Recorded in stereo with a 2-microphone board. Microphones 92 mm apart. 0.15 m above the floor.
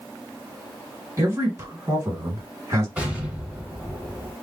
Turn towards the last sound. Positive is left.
turn(degrees=-10)  # may be behind; listen again after turning